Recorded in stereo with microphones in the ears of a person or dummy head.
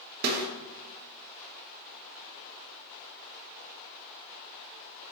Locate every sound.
0.2 s a snare drum: 50° right (ahead or behind), 1.4 m